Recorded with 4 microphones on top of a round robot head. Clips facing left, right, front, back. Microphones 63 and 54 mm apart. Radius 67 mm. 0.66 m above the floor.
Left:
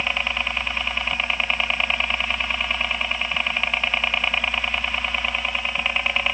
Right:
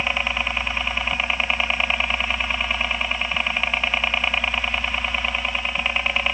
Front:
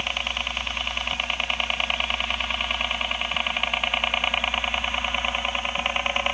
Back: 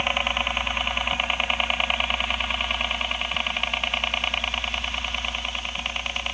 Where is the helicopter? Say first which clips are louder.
Right 1 dB, back 4 dB; 160° right; by 6.3 s 5° right.